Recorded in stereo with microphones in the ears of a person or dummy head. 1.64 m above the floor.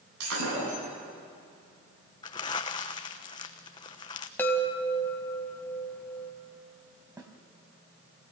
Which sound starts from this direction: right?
Breaking glass, at 0.2 s.